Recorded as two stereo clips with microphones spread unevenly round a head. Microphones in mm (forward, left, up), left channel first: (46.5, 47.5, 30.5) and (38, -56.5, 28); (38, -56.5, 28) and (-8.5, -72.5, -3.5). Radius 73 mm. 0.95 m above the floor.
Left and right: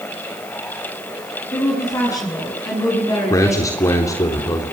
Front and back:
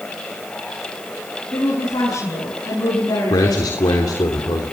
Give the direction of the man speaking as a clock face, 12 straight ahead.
11 o'clock.